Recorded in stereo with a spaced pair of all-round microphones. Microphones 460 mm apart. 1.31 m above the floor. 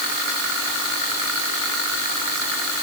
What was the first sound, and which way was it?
Only background noise.